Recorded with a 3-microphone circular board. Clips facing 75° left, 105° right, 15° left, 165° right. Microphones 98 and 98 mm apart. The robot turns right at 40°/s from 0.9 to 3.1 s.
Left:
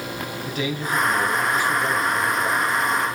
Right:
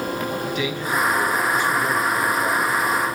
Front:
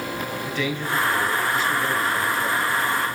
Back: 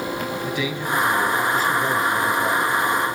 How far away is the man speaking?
About 3.5 m.